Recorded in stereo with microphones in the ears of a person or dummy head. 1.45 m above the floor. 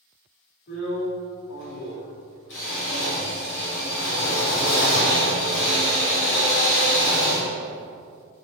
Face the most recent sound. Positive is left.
turn(degrees=65)  # may be behind; listen again after turning